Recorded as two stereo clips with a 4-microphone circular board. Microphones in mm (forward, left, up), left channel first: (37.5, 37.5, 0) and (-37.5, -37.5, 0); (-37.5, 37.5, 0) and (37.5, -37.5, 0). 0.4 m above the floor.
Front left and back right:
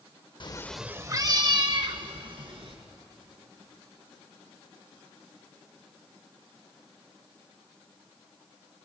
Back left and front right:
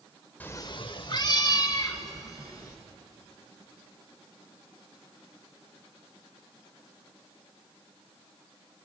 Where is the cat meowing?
65° left, 0.7 m; by 2.8 s 170° right, 3.5 m.